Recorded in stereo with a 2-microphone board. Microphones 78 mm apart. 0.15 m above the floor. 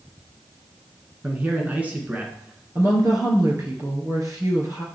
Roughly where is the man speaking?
Right.